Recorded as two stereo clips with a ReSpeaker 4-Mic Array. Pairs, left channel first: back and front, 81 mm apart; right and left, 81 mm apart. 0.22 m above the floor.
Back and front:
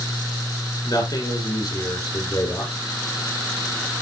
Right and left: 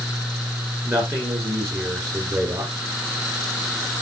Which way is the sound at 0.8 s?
140° left.